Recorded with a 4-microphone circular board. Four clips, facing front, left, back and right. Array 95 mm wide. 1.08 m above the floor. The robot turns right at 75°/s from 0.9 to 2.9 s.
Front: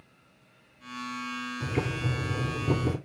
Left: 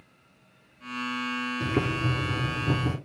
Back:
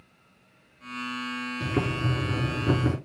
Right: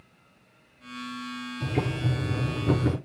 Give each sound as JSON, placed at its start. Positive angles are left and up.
{"t": 1.6, "sound": "boiling", "azimuth_deg": 120, "distance_m": 5.0}